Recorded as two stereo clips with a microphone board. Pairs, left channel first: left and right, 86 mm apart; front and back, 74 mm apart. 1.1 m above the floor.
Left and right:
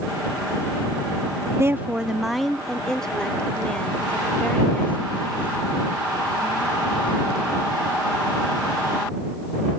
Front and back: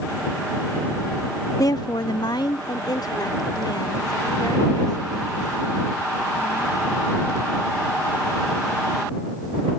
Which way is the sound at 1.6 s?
35° right.